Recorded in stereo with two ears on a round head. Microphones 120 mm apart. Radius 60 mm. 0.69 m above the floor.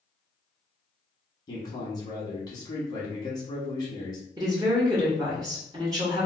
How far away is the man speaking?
About 1.2 m.